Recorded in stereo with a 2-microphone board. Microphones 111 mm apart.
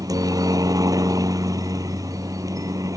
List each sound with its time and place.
0.0 s a helicopter: 30° right (ahead or behind)